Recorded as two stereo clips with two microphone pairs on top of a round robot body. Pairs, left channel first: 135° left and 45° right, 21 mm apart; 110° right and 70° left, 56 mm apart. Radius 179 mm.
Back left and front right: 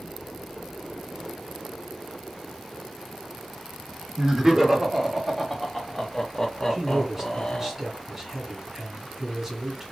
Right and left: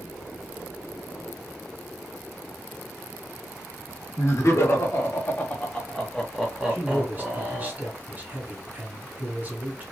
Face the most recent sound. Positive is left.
turn(degrees=20)